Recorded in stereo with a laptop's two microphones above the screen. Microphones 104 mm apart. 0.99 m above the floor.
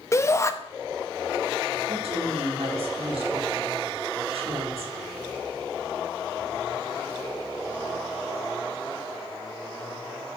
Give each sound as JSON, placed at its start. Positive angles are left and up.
{"t": 0.1, "sound": "a shout", "side_deg": 25, "distance_m": 1.0}
{"t": 1.9, "sound": "a woman speaking", "side_deg": -70, "distance_m": 2.0}